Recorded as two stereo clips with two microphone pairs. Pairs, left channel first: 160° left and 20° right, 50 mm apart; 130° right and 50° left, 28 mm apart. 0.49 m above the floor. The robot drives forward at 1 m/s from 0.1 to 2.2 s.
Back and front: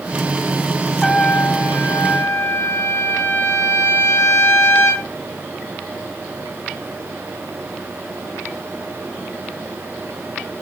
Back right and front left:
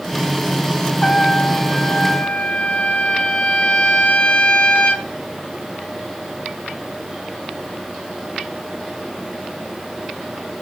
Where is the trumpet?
130° right, 0.8 m; by 5.1 s 170° right, 1.6 m.